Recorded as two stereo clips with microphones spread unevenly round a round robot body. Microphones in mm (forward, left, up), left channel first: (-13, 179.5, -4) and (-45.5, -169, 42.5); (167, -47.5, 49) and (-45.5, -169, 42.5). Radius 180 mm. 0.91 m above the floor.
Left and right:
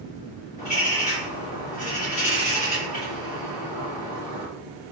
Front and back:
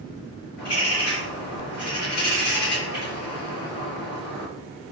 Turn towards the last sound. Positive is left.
turn(degrees=15)